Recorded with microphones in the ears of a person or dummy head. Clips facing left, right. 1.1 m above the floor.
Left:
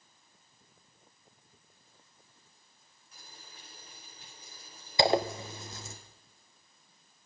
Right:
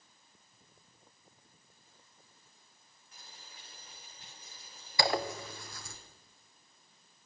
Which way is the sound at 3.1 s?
85° left.